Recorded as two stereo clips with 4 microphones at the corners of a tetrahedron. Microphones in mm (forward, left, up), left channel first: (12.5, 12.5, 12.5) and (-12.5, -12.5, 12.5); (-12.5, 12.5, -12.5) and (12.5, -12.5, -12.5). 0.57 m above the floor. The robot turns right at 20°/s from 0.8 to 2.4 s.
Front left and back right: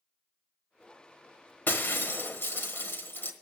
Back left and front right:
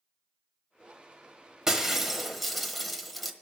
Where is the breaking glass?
30° left, 1.1 m; by 3.3 s 45° left, 1.1 m.